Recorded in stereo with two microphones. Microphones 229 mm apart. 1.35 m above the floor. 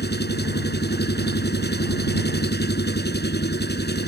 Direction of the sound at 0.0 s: 45° left (ahead or behind).